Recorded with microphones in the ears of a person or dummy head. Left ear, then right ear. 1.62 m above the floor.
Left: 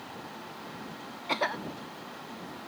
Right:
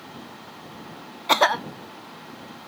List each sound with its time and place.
1.3 s a cough: 50° right (ahead or behind)